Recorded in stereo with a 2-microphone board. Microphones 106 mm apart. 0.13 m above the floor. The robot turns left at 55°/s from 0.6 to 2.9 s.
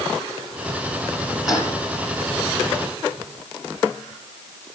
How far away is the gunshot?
About 5.5 m.